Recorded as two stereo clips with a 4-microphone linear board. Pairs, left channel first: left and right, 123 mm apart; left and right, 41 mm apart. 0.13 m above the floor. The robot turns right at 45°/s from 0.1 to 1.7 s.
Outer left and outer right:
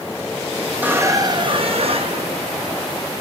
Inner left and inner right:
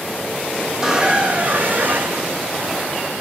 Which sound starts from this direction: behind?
A squeak, at 0.7 s.